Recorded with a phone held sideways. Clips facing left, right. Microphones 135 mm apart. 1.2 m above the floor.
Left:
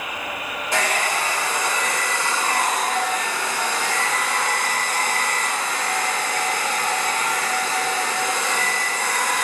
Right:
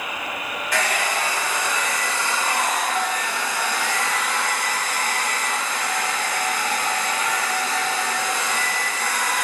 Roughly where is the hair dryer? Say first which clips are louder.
Left 1 dB; left.